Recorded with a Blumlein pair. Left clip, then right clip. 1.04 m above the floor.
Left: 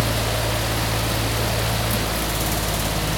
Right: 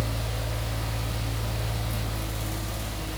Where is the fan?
35° left, 0.7 m.